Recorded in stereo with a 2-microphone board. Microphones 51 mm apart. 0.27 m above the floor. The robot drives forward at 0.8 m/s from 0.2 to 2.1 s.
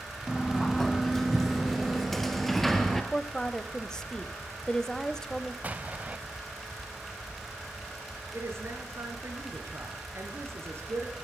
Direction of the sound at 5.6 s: 30° right (ahead or behind).